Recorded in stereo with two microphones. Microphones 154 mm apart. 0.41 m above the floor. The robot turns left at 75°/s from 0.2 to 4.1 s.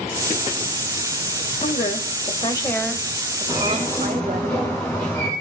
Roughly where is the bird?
Ahead left.